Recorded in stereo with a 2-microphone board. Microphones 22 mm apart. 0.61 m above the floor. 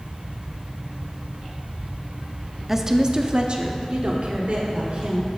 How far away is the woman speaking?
About 0.6 m.